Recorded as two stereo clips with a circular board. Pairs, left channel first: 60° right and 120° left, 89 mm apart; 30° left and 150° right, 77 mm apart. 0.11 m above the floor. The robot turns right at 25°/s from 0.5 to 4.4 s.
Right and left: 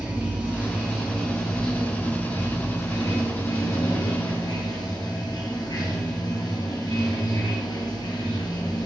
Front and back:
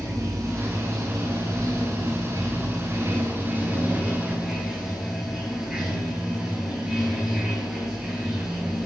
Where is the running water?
170° right, 1.0 m; by 8.9 s 75° right, 1.0 m.